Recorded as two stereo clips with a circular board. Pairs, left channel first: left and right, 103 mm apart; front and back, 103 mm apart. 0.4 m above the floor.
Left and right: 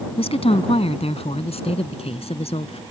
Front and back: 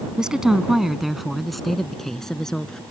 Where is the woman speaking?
100° left; by 2.8 s 85° left.